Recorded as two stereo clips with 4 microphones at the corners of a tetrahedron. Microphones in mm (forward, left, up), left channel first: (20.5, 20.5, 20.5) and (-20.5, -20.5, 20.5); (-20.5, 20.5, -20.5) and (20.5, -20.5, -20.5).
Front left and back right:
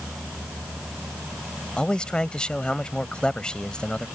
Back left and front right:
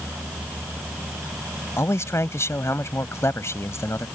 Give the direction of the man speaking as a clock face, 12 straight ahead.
8 o'clock.